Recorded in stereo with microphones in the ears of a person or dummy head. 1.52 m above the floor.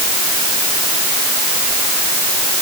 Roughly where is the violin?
No violin in this recording.